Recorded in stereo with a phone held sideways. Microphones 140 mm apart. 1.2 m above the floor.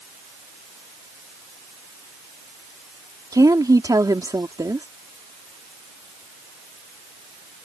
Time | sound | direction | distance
3.3 | a woman speaking | 25° right (ahead or behind) | ?